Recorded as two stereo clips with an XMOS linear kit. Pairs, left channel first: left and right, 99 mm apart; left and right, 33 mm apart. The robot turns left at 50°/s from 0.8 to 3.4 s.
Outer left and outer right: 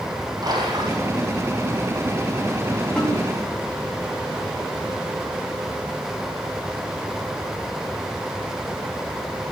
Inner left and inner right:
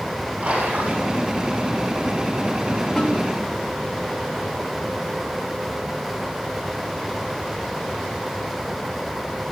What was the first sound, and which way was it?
A splash, 45° right (ahead or behind).